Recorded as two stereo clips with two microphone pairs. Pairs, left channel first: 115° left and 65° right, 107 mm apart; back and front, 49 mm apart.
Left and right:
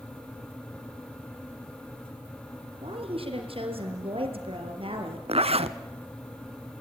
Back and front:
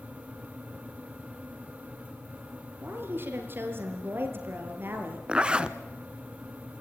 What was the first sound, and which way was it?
A woman speaking, 40° right.